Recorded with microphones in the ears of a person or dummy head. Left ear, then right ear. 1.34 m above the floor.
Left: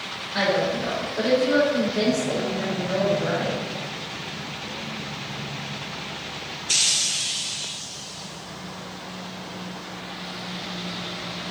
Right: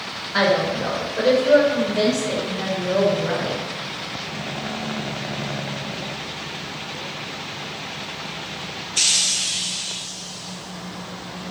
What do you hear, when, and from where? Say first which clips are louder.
0.3 s a woman speaking: right 3 dB; 25° right (ahead or behind), 1.5 m; by 3.6 s 45° left (ahead or behind), 2.5 m